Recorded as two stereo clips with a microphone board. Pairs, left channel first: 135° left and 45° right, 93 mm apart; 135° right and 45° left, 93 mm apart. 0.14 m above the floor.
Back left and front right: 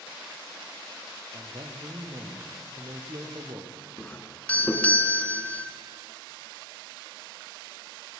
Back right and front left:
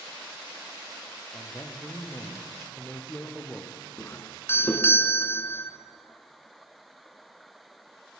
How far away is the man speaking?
About 4 m.